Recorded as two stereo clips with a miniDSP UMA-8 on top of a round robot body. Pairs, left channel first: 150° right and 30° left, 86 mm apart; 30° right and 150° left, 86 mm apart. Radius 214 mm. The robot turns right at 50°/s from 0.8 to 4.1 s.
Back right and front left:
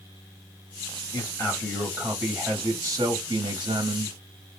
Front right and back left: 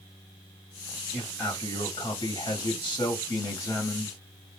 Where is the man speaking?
105° right, 1.3 m; by 4.2 s 45° left, 1.3 m.